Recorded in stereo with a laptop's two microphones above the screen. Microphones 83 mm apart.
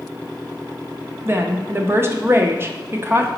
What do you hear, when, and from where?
1.2 s a woman speaking: 30° right (ahead or behind), 0.9 m